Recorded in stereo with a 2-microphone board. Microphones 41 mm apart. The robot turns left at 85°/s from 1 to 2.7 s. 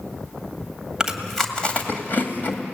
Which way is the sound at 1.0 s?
20° right (ahead or behind).